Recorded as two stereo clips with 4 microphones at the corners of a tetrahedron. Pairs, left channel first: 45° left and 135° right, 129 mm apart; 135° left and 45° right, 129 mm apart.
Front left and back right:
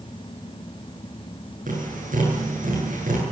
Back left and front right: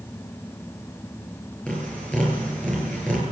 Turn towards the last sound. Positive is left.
turn(degrees=-145)